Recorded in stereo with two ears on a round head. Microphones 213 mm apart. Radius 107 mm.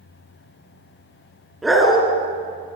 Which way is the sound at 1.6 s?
Centre (ahead or behind).